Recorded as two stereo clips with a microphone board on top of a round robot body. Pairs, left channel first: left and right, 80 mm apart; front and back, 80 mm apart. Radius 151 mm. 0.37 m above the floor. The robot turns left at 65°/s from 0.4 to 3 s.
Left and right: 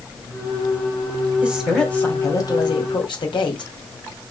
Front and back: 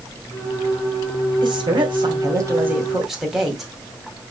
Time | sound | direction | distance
1.4 | a woman speaking | 165° right | 2.5 m